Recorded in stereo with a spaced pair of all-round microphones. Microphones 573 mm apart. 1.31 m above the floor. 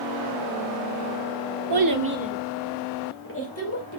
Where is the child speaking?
45° right (ahead or behind), 0.7 m; by 4.0 s 30° left (ahead or behind), 1.8 m.